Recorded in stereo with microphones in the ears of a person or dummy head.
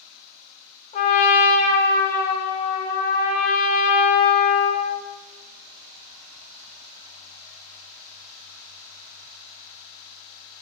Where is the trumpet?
35° left (ahead or behind), 1.0 m.